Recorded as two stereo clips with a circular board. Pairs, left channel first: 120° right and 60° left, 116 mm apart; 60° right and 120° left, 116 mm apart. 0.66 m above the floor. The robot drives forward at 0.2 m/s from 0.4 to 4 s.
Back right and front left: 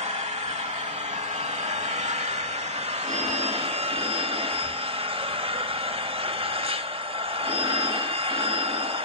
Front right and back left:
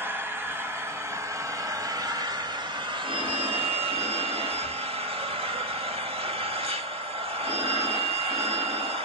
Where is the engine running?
50° left, 1.1 m; by 9.1 s 90° left, 0.9 m.